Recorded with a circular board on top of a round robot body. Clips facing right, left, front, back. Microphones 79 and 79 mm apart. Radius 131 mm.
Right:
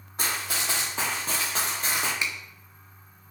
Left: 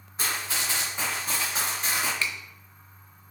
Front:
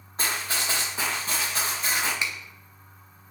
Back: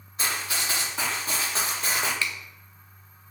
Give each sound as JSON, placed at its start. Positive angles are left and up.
{"t": 0.2, "sound": "running footsteps", "azimuth_deg": -50, "distance_m": 1.0}
{"t": 2.2, "sound": "a finger snap", "azimuth_deg": -45, "distance_m": 0.6}